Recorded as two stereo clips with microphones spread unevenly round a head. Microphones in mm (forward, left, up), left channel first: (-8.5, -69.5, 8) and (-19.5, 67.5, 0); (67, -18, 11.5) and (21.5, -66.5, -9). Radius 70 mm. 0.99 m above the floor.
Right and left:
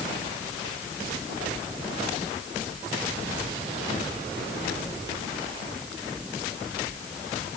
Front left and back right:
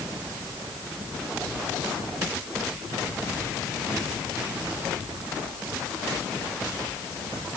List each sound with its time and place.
Only background noise.